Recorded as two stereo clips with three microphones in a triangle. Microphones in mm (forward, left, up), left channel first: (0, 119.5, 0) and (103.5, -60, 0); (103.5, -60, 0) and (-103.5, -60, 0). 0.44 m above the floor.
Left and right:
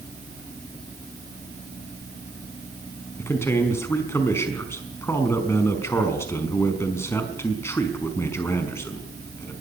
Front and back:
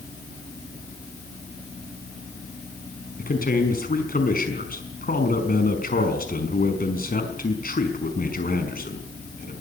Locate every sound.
3.2 s a man speaking: 40° left, 5 m